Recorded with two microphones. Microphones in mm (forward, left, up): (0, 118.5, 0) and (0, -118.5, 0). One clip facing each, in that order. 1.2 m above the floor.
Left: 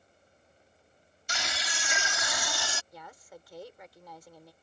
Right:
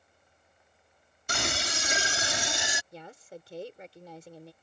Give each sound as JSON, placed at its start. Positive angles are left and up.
{"t": 1.3, "sound": "a scream", "side_deg": -55}
{"t": 2.9, "sound": "a woman speaking", "side_deg": -30}